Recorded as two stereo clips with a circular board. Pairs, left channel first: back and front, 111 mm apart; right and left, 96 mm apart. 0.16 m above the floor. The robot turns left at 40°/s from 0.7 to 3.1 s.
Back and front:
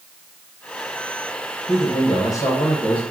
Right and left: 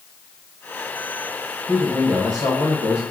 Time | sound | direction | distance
1.7 | a man speaking | 155° left | 2.0 m